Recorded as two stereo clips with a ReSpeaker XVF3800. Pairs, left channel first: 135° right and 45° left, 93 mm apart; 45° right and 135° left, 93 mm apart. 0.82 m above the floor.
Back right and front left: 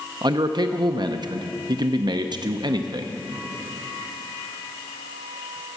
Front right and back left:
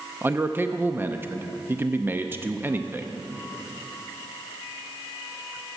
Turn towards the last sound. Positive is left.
turn(degrees=70)